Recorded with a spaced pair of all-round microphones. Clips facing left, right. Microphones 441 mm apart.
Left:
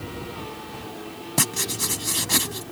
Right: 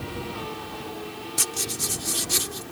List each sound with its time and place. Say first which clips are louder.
1.4 s writing: left 8 dB; 75° left (ahead or behind)